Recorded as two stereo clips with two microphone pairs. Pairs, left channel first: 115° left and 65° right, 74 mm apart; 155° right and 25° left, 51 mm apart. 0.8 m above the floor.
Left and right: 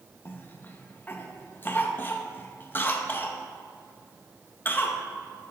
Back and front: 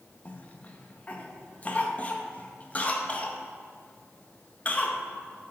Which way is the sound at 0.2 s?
155° left.